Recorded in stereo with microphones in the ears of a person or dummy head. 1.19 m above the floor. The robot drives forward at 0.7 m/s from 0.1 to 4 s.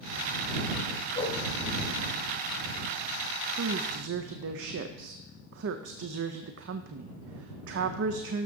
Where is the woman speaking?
65° right (ahead or behind), 0.5 m; by 8.5 s 70° right (ahead or behind), 0.5 m.